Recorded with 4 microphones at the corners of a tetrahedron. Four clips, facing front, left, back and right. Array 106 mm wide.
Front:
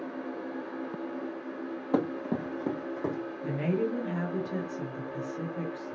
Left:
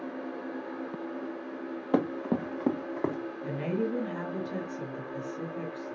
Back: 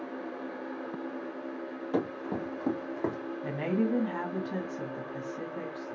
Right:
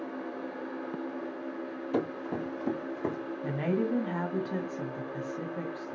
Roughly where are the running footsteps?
Left.